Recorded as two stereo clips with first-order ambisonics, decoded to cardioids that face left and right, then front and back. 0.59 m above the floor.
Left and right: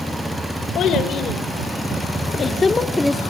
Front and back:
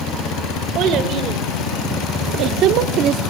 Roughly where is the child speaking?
Behind left.